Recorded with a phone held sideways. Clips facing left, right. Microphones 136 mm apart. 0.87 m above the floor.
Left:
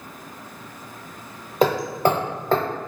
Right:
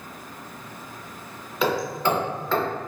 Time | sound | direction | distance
1.6 | hammering | 45° left (ahead or behind) | 0.6 m